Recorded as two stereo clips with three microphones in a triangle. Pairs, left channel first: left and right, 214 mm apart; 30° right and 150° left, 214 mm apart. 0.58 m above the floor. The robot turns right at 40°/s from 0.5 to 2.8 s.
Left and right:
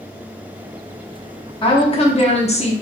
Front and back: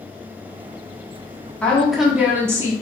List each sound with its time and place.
1.6 s a woman speaking: 50° left, 0.8 m; by 2.7 s 95° left, 0.8 m